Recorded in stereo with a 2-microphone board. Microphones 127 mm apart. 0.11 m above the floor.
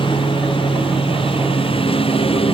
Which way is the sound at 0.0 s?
45° left (ahead or behind).